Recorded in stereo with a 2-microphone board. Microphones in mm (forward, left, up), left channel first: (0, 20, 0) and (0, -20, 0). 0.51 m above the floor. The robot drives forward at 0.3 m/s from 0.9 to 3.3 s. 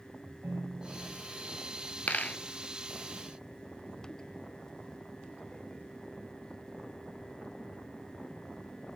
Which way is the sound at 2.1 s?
40° left (ahead or behind).